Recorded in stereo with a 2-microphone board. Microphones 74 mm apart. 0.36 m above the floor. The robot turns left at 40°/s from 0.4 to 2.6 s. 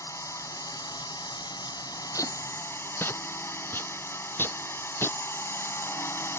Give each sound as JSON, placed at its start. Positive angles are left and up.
{"t": 0.0, "sound": "a drone", "azimuth_deg": 130}
{"t": 2.1, "sound": "tape being pulled", "side_deg": 50}